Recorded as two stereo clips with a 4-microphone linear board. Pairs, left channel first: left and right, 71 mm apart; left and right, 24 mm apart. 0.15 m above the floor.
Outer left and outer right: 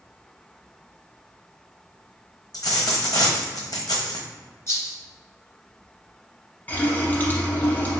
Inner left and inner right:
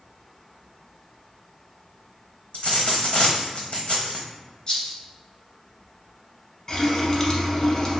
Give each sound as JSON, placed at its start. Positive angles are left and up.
{"t": 2.5, "sound": "a dropped coin", "side_deg": 60, "distance_m": 1.2}
{"t": 4.7, "sound": "a rattle", "side_deg": 35, "distance_m": 1.7}
{"t": 6.7, "sound": "a running tap", "side_deg": 25, "distance_m": 0.9}